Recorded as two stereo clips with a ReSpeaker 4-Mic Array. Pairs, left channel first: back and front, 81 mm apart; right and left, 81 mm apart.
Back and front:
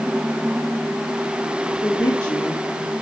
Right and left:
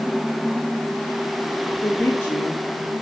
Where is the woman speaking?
160° right, 1.7 m; by 2.9 s 105° right, 0.7 m.